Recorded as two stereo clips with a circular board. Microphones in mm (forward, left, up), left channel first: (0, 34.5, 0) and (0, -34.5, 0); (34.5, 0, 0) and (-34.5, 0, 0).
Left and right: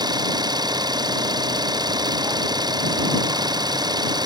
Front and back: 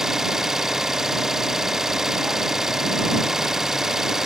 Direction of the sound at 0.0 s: 95° right.